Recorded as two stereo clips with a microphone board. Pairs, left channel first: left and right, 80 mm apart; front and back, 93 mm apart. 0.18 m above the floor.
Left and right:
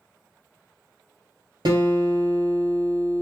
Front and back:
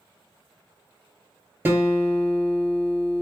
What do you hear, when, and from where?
1.6 s a guitar: 115° right, 1.4 m